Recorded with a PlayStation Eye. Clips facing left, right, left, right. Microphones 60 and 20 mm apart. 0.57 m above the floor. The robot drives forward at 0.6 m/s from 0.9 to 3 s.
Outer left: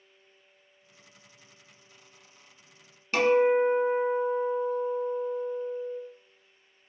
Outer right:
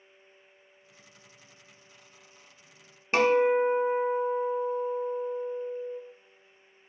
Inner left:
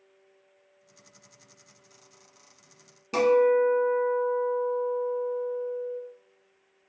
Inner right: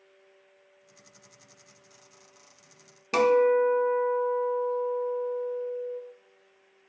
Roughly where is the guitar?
Right.